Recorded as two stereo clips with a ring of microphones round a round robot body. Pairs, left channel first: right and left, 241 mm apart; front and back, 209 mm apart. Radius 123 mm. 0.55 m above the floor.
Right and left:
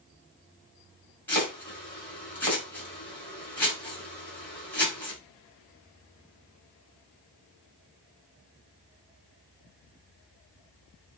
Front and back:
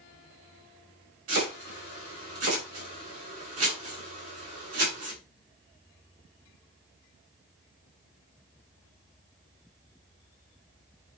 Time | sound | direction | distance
1.3 | chopping | 175° right | 5.5 m